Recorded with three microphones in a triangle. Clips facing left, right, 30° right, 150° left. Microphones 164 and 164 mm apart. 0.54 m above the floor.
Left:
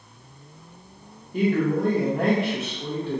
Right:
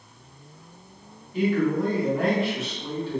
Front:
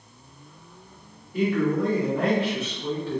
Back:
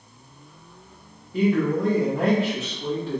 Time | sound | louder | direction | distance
1.3 | a man speaking | left 1 dB, back 2 dB | 90° left | 0.8 m